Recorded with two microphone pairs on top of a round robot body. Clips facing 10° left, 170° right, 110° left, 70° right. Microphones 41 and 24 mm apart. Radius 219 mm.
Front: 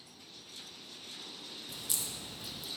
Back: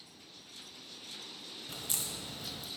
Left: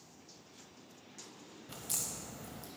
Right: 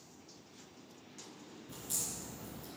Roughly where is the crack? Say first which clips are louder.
Back 2 dB, left 1 dB; behind left.